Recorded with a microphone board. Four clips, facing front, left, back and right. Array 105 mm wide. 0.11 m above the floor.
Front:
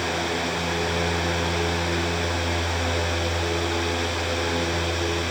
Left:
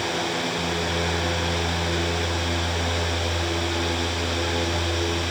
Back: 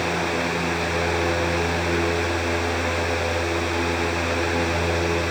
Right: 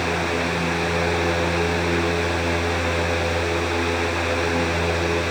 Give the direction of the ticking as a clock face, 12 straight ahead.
No ticking in this recording.